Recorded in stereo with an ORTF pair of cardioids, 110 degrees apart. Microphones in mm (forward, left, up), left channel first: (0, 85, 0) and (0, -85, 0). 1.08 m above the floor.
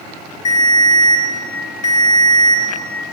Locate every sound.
0.5 s a ringtone: 45° left, 1.9 m